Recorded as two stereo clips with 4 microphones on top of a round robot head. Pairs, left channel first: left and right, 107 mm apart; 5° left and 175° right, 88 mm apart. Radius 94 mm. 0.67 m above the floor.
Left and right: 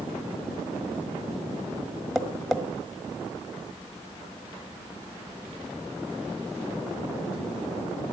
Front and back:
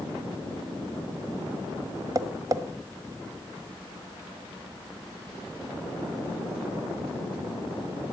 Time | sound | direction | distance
2.1 | tapping | straight behind | 1.3 m